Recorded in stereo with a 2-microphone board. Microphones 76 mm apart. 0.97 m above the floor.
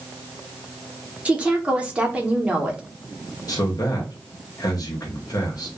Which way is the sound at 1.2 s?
15° right (ahead or behind).